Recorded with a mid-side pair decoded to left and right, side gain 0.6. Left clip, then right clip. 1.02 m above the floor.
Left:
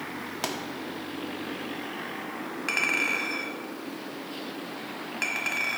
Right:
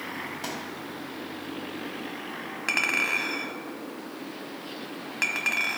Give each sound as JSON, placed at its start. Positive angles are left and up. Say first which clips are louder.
{"t": 0.4, "sound": "a pop", "louder": "left 5 dB", "azimuth_deg": 45, "distance_m": 1.6}
{"t": 2.7, "sound": "a clink", "louder": "right 1 dB", "azimuth_deg": -15, "distance_m": 1.2}